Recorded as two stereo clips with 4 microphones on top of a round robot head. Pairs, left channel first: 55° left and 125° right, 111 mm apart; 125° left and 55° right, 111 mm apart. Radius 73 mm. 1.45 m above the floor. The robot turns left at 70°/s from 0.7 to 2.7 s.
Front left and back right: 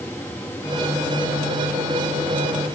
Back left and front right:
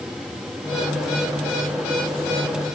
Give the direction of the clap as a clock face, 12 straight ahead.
I don't hear a clap.